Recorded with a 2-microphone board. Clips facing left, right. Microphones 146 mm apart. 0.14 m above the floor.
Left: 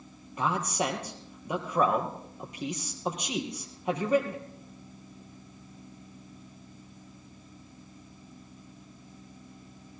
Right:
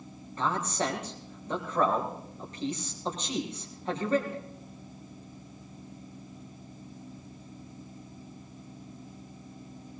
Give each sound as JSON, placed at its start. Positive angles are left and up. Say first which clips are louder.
{"t": 0.4, "sound": "a man speaking", "louder": "left 1 dB", "side_deg": 10, "distance_m": 3.5}